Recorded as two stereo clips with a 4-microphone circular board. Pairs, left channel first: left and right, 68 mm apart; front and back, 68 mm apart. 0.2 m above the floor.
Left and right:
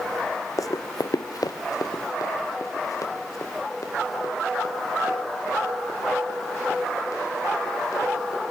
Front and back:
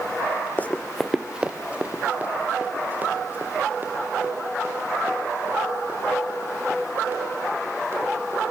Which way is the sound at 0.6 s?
60° left.